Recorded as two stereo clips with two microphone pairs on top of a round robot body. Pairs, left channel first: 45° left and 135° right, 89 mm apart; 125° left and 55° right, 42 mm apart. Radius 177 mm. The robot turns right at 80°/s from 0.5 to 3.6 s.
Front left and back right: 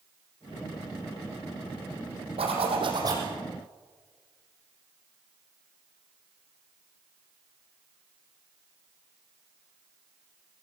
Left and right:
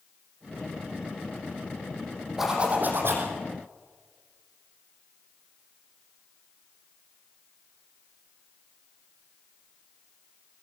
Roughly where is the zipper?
Behind right.